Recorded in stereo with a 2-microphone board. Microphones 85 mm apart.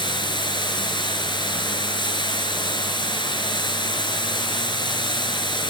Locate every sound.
0.0 s running water: 65° left (ahead or behind), 5 m